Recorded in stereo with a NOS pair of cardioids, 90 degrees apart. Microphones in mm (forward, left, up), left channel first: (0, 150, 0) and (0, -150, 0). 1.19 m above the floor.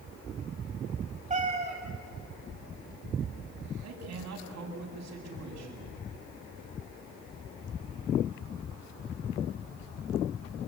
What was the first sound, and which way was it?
A cat meowing, 25° right.